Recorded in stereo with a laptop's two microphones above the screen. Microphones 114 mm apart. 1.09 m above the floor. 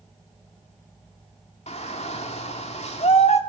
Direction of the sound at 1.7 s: 60° left (ahead or behind).